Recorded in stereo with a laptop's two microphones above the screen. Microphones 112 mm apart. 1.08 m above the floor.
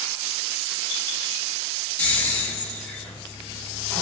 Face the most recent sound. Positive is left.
turn(degrees=10)  # may be behind; listen again after turning